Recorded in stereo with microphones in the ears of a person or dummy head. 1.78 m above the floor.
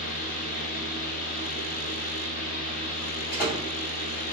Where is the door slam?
60° left (ahead or behind), 1.8 m.